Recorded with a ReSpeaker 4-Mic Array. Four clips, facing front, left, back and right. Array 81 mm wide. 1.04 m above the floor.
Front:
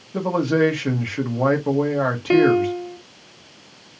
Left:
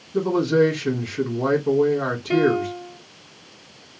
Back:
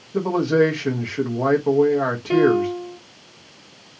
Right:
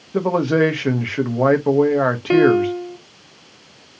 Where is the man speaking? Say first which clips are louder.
Right 1 dB, back 1 dB; 85° right, 0.9 m.